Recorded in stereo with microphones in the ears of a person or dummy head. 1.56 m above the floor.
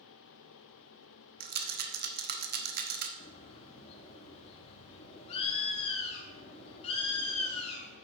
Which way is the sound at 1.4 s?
55° right (ahead or behind).